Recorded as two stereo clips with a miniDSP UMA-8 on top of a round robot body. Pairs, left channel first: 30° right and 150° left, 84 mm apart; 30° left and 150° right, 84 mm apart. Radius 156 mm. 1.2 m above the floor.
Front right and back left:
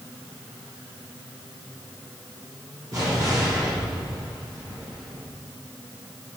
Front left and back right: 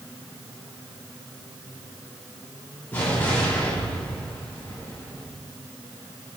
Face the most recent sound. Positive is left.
turn(degrees=100)